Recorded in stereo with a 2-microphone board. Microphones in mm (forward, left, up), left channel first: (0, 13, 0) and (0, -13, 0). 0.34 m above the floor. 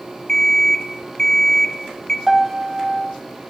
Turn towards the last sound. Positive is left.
turn(degrees=-5)  # may be behind; listen again after turning